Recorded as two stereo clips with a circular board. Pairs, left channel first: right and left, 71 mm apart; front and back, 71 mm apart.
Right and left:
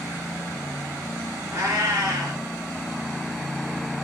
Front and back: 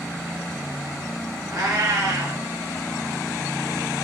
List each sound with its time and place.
1.5 s a cat meowing: 140° left, 2.5 m